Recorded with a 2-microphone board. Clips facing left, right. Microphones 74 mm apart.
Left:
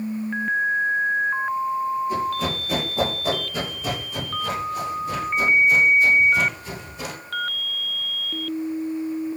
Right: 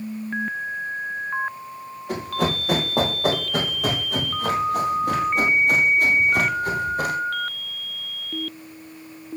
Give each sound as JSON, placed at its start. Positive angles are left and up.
{"t": 2.1, "sound": "running footsteps", "side_deg": -90, "distance_m": 8.5}